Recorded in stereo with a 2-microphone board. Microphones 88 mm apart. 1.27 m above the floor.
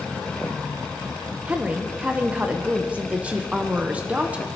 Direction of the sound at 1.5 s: 15° right (ahead or behind).